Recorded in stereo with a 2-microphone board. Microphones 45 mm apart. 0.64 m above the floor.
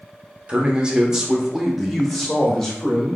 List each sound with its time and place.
0.5 s a man speaking: 25° right (ahead or behind), 1.0 m; by 3.2 s 15° left (ahead or behind), 1.7 m